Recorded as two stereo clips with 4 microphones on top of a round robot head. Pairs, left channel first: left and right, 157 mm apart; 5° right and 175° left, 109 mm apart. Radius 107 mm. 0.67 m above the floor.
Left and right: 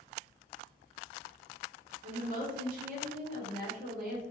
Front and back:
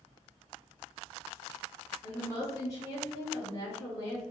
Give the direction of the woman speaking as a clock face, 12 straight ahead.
2 o'clock.